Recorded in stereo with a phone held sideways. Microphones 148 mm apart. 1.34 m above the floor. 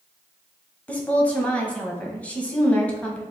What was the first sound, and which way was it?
A woman speaking, 10° left (ahead or behind).